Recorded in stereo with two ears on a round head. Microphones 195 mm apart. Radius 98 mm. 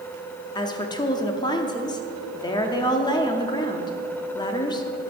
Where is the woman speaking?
20° left (ahead or behind), 0.6 m.